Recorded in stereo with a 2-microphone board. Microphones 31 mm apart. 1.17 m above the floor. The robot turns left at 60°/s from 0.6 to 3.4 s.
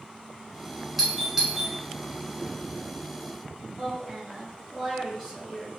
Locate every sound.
1.0 s a doorbell: 5° right (ahead or behind), 0.8 m; by 1.7 s 20° right (ahead or behind), 0.8 m
3.8 s a woman speaking: 10° left (ahead or behind), 1.9 m